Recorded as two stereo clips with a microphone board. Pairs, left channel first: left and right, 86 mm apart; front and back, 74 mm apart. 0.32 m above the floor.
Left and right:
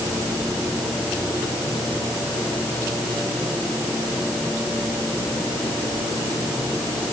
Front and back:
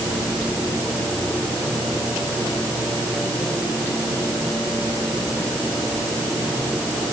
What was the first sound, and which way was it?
Only background noise.